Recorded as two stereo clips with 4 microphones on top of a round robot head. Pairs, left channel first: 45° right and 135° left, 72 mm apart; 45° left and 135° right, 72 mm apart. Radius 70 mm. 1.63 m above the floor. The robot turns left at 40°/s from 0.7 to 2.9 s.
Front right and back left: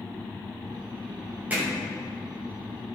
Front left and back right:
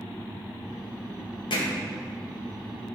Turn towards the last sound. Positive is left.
turn(degrees=10)